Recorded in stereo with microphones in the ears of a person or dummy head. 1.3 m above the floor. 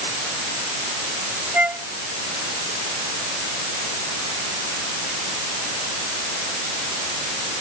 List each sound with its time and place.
1.5 s a flute: 5° right (ahead or behind)